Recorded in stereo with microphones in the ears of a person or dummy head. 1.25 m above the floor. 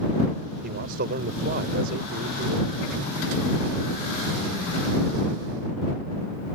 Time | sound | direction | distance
0.6 | a man speaking | 60° right (ahead or behind) | ?